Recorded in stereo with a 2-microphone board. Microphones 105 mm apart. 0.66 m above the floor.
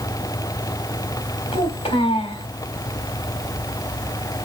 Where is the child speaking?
70° left (ahead or behind), 3.5 m.